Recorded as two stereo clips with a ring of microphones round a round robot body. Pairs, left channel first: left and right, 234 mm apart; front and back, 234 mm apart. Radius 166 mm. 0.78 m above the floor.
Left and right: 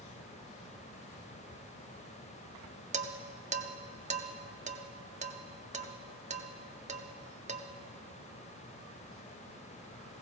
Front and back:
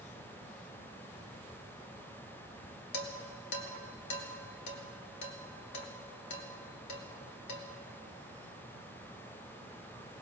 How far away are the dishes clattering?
About 1.0 m.